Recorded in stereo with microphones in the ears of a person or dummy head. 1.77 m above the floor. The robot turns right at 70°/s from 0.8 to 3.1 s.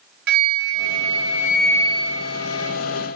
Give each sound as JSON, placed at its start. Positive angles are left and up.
{"t": 0.3, "sound": "a flute", "azimuth_deg": -55, "distance_m": 1.1}